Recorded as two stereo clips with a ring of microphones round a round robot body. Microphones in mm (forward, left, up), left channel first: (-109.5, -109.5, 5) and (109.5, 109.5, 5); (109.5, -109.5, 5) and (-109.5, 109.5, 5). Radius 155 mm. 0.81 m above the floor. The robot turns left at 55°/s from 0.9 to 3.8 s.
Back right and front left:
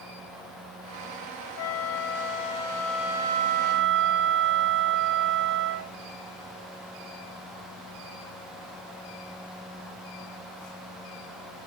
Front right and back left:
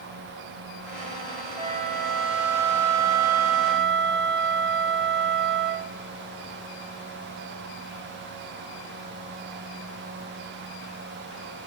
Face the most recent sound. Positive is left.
turn(degrees=90)